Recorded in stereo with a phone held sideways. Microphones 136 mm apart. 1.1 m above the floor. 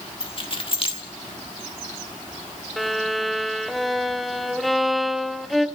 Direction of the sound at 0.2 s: 40° left (ahead or behind).